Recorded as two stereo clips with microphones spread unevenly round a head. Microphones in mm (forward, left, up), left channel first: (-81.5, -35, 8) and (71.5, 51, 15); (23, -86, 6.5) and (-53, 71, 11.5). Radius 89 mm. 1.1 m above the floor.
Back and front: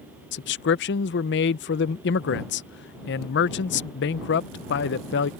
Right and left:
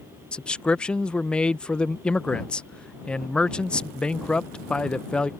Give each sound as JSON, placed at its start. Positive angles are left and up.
{"t": 0.3, "sound": "a man speaking", "azimuth_deg": -150}